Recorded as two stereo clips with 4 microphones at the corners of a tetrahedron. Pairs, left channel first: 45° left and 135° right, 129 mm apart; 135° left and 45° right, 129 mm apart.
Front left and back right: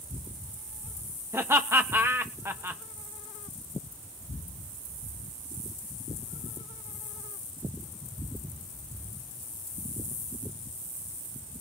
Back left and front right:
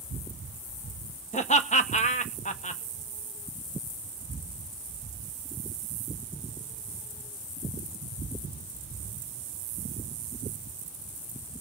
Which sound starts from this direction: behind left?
Laughter, at 1.3 s.